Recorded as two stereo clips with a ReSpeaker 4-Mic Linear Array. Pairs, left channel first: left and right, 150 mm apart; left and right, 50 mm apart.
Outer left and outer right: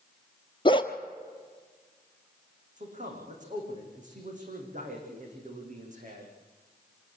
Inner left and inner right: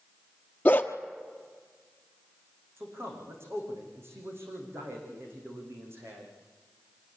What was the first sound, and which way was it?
A dog barking, 35° left (ahead or behind).